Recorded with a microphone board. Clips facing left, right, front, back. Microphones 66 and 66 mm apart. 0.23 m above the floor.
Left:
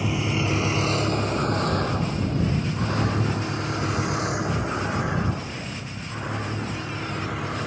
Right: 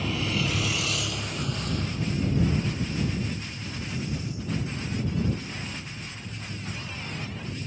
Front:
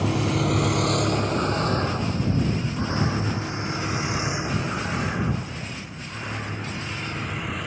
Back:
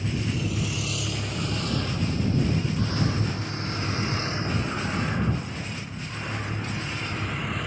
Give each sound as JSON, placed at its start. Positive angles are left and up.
{"t": 0.0, "sound": "a vehicle", "azimuth_deg": 15}